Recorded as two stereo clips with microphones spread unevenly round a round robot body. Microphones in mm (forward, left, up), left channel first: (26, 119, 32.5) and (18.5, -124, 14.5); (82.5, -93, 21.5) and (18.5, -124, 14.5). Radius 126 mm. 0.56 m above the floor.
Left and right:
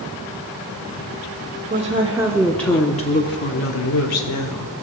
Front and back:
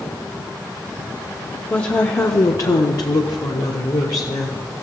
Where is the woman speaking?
35° right, 1.8 m; by 4.7 s 85° left, 2.5 m.